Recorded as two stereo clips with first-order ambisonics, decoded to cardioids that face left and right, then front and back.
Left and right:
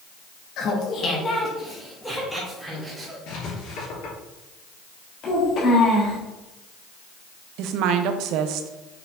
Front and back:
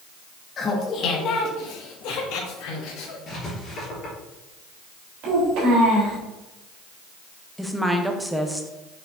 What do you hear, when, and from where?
0.6 s laughter: 60° left, 1.2 m; by 3.2 s straight ahead, 3 m
3.3 s writing: 60° left, 3 m
5.2 s a child speaking: 145° left, 3.5 m
7.6 s a woman speaking: 90° right, 0.7 m